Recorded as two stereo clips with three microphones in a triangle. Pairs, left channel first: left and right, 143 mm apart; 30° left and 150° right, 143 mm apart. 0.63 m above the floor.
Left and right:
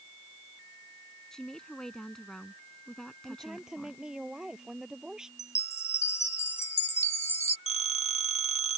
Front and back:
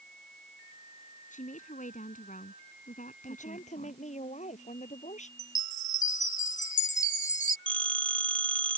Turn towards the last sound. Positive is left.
turn(degrees=50)